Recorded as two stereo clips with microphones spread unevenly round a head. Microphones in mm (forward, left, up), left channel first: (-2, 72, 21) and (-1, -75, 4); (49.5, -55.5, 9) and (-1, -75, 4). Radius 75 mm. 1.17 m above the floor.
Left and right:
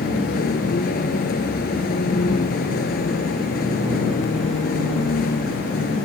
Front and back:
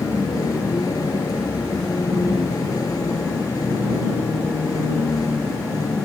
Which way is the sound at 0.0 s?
60° left.